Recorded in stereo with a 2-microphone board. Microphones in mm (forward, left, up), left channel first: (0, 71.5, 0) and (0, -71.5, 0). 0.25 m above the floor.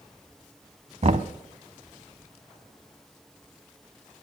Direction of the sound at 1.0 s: 50° right (ahead or behind).